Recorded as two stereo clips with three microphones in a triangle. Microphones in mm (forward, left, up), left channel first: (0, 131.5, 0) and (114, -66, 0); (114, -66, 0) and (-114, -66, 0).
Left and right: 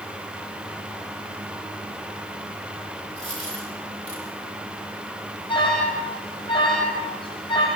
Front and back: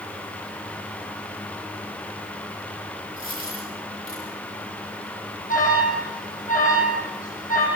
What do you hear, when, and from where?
3.2 s a dropped coin: 30° right, 7 m
5.5 s an alarm: 50° left, 8 m